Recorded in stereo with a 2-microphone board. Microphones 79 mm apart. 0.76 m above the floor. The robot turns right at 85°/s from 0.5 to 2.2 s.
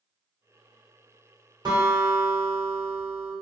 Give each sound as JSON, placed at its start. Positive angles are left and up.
{"t": 1.6, "sound": "a guitar", "azimuth_deg": -70, "distance_m": 1.2}